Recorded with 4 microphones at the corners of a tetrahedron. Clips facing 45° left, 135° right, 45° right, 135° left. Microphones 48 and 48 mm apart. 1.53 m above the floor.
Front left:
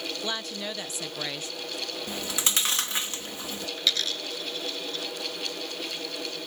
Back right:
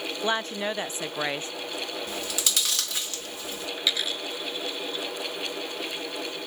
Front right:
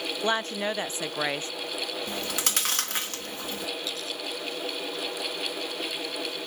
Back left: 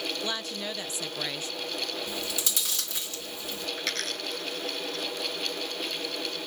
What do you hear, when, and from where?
0.2 s a woman speaking: 90° right
2.1 s chewing: 15° right
3.8 s a dropped coin: 150° left